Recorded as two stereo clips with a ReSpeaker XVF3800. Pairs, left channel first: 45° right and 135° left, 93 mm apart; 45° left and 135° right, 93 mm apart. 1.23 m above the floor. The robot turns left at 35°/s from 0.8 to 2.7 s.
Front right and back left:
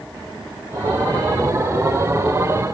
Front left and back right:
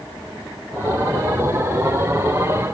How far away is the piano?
I don't hear a piano.